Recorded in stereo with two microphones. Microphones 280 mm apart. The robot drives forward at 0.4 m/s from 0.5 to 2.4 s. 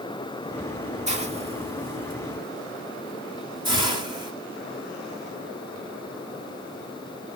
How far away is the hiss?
About 0.9 m.